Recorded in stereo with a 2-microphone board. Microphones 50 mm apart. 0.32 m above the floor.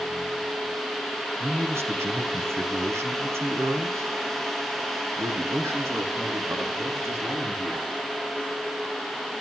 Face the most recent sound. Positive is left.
turn(degrees=-60)  # may be behind; listen again after turning